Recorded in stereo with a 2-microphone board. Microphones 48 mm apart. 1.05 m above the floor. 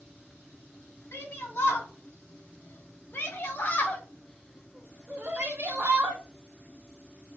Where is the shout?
75° left (ahead or behind), 2.0 m; by 6.2 s 60° right (ahead or behind), 1.0 m.